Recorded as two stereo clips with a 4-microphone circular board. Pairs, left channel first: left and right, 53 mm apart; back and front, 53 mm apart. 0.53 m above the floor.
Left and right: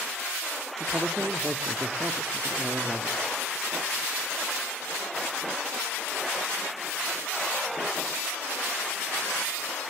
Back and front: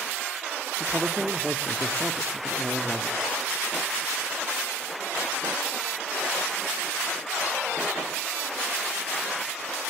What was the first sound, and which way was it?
A man speaking, 65° right.